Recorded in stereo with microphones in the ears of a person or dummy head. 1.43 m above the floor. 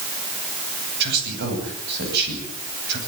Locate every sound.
1.0 s a man speaking: 65° right (ahead or behind), 10 m